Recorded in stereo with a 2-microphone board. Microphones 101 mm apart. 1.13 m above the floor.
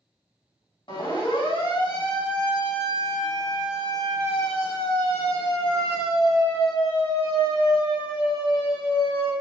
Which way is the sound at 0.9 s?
55° left (ahead or behind).